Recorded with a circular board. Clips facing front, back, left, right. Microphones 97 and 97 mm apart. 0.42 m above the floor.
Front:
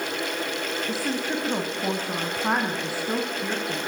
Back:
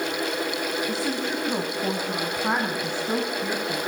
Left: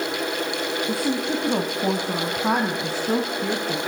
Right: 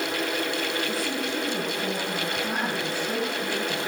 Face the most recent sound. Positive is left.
turn(degrees=85)